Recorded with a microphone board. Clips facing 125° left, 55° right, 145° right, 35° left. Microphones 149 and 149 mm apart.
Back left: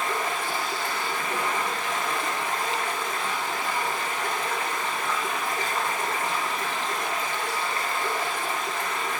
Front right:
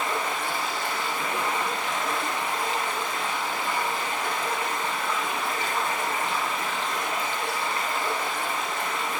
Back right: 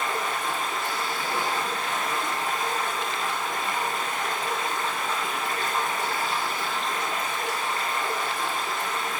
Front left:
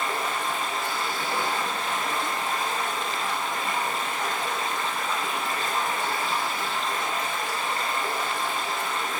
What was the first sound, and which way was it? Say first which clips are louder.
Running water: even, even; straight ahead.